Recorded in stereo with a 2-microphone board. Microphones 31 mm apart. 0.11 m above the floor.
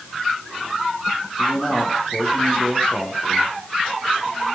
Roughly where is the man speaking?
Left.